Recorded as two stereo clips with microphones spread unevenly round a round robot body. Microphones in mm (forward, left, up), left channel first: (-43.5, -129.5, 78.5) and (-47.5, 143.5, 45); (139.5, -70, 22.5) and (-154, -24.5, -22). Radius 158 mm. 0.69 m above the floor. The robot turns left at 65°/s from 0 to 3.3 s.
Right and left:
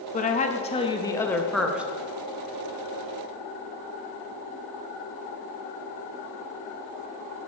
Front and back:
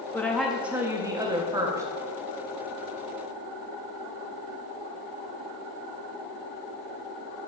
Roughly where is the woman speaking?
Right.